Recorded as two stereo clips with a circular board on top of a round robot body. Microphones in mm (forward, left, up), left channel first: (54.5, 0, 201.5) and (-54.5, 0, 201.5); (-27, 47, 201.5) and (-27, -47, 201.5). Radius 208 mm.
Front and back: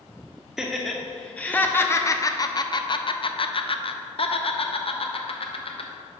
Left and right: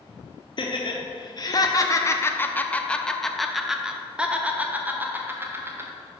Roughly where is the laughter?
Left.